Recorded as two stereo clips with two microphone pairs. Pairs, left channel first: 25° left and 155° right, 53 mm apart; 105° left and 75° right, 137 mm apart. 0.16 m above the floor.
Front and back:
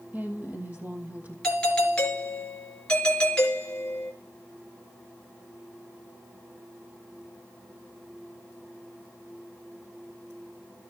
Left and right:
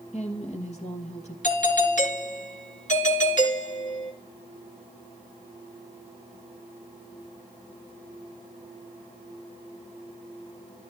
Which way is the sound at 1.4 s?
95° left.